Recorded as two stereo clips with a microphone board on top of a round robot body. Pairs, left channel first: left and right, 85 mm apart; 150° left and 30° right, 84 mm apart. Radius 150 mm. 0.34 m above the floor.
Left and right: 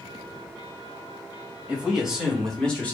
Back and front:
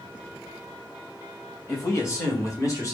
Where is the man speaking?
160° right, 2 m; by 2.9 s 150° left, 1.8 m.